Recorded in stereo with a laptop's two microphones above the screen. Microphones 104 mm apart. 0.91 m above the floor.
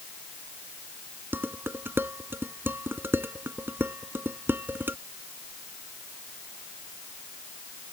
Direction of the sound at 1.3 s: 20° right (ahead or behind).